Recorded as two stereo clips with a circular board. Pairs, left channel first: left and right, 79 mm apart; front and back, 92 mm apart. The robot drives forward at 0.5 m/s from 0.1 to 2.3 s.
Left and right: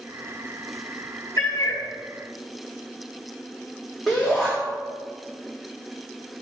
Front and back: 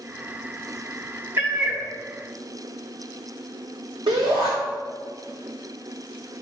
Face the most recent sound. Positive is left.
turn(degrees=-175)